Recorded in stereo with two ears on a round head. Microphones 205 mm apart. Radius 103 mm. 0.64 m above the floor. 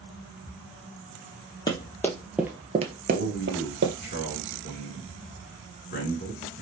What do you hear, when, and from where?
1.7 s running footsteps: 20° left (ahead or behind), 1.2 m; by 4.0 s 55° right (ahead or behind), 1.2 m
3.1 s a man speaking: 45° left (ahead or behind), 1.9 m